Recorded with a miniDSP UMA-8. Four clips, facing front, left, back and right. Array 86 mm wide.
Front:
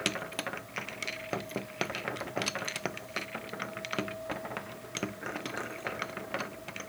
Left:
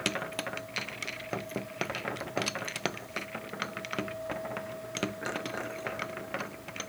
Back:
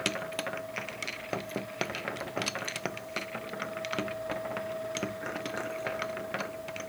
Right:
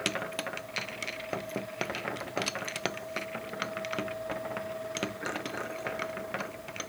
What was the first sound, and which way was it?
Only background noise.